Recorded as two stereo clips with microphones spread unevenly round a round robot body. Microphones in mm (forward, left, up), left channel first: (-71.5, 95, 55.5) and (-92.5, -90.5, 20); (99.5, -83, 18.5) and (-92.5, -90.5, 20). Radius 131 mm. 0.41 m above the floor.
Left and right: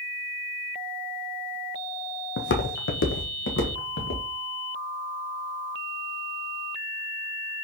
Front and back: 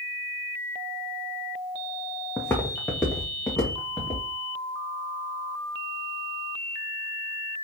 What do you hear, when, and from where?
2.4 s footsteps: 85° left, 0.8 m; by 4.2 s 90° left, 2 m